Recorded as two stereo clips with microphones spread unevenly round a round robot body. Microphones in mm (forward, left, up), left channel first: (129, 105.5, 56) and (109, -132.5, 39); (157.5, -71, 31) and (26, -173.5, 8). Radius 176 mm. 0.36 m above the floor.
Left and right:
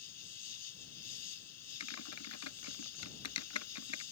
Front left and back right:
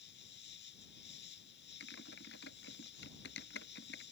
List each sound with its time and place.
0.0 s an insect: 80° left
1.8 s typing on a keyboard: 80° left